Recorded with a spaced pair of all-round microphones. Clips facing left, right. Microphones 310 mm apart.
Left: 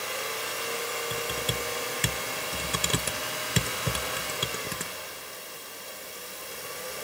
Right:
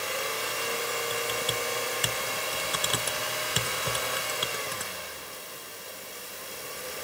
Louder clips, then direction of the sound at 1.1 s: Right 1 dB; 35° left (ahead or behind).